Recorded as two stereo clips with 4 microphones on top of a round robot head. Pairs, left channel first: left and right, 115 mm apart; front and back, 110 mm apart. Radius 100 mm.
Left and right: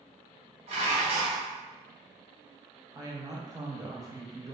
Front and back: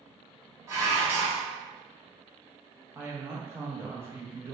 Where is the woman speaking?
125° right, 0.6 m.